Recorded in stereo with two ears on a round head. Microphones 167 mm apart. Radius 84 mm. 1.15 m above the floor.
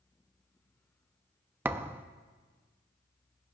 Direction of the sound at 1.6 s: 10° right (ahead or behind).